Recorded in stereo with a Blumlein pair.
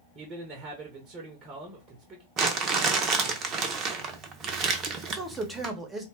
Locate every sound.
0.1 s a man speaking: 25° right, 0.7 m
2.4 s crumpling: 30° right, 0.6 m
5.1 s a man speaking: 10° right, 0.9 m